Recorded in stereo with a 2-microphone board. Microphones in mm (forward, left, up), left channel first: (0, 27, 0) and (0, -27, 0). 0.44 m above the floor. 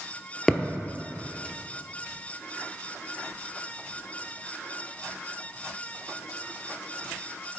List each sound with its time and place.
0.5 s a thud: 10° left (ahead or behind), 0.8 m